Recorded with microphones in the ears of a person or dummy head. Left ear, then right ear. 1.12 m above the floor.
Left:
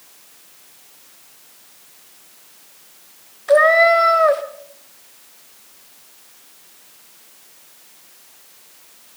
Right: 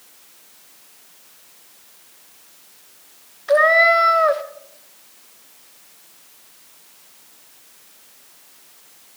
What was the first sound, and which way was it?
A cat meowing, 5° left (ahead or behind).